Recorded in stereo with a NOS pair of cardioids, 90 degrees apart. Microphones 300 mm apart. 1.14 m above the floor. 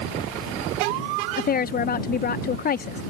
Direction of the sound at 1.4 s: 30° left.